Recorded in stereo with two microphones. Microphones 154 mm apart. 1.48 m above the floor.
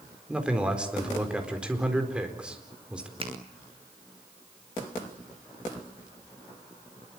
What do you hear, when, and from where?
0.3 s a man speaking: 5° right (ahead or behind), 4.5 m
3.2 s a finger snap: 40° right (ahead or behind), 3.5 m